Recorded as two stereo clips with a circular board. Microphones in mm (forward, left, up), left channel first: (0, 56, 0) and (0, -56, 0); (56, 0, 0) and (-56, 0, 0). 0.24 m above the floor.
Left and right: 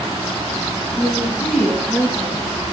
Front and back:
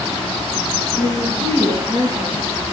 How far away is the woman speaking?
About 1.4 m.